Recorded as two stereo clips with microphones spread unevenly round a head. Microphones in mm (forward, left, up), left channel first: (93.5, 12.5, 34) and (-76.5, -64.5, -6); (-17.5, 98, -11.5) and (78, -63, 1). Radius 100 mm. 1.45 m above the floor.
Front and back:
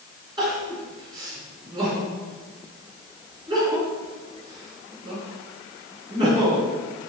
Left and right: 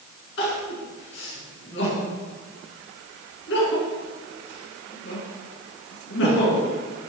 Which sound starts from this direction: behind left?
Crying, at 0.4 s.